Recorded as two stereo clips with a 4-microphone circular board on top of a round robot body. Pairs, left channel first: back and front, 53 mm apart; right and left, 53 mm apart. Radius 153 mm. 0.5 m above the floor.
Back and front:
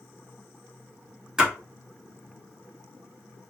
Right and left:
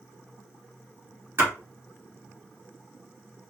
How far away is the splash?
About 1.8 m.